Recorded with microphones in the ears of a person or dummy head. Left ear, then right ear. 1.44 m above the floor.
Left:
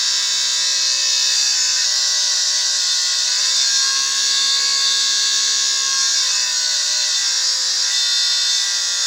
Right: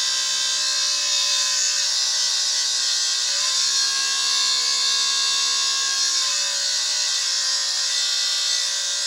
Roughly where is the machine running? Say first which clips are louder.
Left 4 dB; centre.